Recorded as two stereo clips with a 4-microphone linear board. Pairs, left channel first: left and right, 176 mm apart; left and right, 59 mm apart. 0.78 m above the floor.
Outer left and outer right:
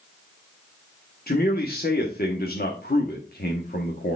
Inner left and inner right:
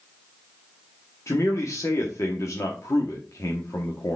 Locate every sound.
1.3 s a man speaking: 65° left (ahead or behind), 1.3 m